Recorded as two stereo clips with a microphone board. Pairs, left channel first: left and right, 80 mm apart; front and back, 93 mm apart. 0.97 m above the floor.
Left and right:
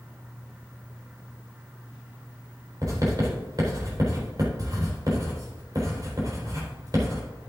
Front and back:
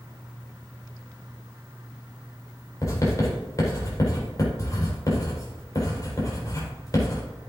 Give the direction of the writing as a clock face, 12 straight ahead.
2 o'clock.